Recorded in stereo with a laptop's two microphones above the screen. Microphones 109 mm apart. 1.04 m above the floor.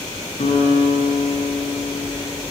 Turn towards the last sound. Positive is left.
turn(degrees=75)  # may be behind; listen again after turning